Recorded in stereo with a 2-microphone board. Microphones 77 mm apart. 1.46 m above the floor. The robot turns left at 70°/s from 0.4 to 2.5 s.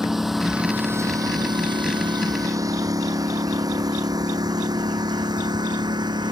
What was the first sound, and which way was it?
A lawn mower, 5° right (ahead or behind).